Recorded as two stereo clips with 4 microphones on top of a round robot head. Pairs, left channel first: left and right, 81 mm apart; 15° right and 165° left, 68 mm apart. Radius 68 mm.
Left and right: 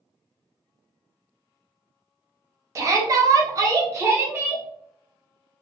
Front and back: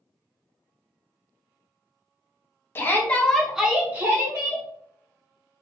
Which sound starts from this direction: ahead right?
A shout, at 2.8 s.